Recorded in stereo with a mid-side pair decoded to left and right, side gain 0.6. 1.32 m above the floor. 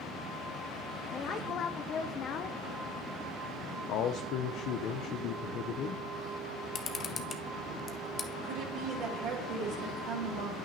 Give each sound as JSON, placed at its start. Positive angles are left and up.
{"t": 1.1, "sound": "a woman speaking", "azimuth_deg": 45, "distance_m": 0.6}
{"t": 3.9, "sound": "a man speaking", "azimuth_deg": 60, "distance_m": 0.6}
{"t": 6.8, "sound": "a camera shutter", "azimuth_deg": 40, "distance_m": 0.9}
{"t": 8.4, "sound": "a woman speaking", "azimuth_deg": -70, "distance_m": 3.5}